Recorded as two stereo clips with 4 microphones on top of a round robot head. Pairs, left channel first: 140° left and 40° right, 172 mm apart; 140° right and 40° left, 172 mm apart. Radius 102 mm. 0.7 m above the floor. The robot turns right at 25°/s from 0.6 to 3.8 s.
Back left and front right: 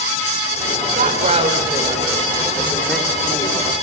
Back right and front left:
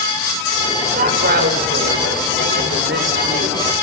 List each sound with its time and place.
0.9 s a woman speaking: straight ahead, 3.5 m; by 3.6 s 70° left, 3.5 m